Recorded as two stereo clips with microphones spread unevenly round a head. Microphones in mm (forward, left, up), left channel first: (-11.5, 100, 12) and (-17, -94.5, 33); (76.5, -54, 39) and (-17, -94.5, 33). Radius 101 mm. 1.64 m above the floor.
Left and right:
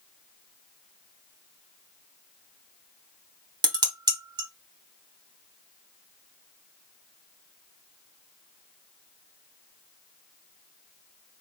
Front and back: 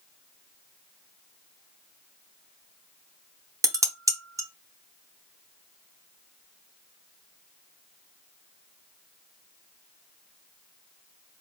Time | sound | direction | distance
3.6 | dishes clattering | 130° right | 0.6 m